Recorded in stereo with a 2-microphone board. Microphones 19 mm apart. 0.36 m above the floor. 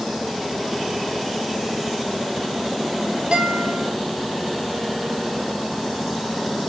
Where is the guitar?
70° right (ahead or behind), 4.5 m.